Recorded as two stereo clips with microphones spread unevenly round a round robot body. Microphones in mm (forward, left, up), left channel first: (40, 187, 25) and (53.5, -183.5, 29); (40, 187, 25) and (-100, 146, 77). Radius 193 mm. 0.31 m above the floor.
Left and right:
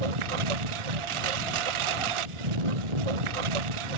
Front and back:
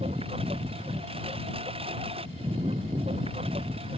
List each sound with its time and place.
0.0 s a lawn mower: 90° right